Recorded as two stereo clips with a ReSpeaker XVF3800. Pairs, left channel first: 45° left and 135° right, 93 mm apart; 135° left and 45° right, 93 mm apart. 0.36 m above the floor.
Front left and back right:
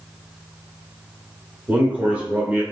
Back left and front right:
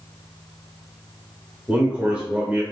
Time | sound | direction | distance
1.7 | a man speaking | 100° right | 1.2 m